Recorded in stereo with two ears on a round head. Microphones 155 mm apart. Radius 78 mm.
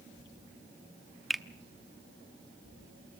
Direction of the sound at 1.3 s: Centre (ahead or behind).